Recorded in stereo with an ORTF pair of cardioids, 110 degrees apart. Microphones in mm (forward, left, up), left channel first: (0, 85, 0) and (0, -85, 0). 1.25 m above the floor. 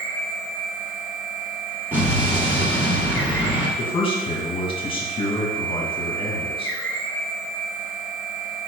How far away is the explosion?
About 2.5 m.